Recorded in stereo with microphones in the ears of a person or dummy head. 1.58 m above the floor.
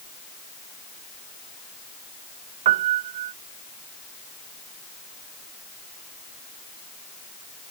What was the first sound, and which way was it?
A piano, 35° right (ahead or behind).